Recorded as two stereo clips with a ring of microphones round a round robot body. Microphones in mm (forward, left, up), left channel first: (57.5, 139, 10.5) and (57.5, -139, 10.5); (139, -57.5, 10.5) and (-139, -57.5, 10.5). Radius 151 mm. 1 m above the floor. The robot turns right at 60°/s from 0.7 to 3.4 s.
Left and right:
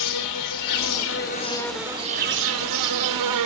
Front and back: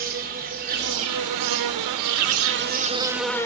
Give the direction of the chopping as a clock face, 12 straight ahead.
No chopping in this recording.